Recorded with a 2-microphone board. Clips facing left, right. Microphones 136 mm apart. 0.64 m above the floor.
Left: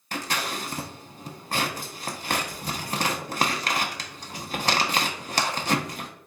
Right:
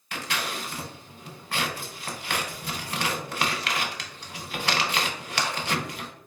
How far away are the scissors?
About 0.7 m.